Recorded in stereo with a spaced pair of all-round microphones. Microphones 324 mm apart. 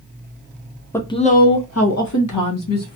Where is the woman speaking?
10° left (ahead or behind), 0.7 m; by 3.0 s 80° left, 1.1 m.